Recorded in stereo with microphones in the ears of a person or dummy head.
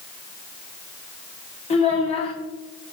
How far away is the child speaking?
About 1.1 m.